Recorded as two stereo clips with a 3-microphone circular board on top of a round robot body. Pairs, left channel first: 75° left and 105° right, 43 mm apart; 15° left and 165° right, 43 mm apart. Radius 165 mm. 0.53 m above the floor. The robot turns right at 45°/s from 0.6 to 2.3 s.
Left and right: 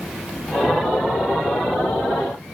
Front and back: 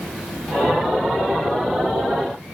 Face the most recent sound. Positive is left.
No sound to turn to.